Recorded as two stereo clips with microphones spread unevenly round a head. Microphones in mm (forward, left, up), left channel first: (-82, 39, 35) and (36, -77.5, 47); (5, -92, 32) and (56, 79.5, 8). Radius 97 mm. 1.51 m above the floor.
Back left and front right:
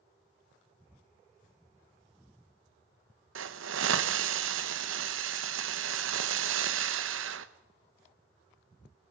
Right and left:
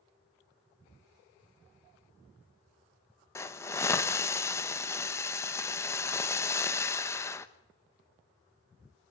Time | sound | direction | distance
3.4 | a hiss | 35° right | 1.1 m